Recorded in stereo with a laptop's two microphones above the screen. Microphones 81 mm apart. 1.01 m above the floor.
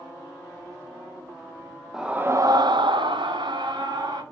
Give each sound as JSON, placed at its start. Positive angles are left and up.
{"t": 1.9, "sound": "a scream", "side_deg": -5, "distance_m": 0.6}